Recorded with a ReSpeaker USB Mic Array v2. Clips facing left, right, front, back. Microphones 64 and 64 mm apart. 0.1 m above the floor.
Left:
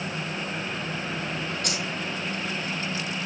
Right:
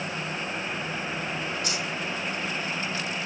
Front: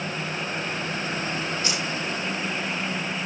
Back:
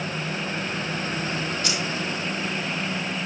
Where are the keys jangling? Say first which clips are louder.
Even, back 1 dB; 65° left, 3 m.